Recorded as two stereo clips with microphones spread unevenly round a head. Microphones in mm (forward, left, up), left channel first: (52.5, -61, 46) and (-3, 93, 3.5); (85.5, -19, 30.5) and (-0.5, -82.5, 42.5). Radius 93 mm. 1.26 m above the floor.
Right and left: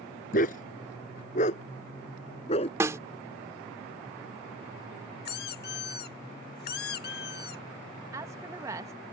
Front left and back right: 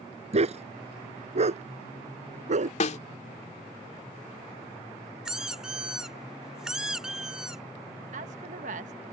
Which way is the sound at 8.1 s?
175° right.